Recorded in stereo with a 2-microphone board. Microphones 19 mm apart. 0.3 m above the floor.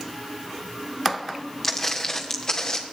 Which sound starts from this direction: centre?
Footsteps, at 1.6 s.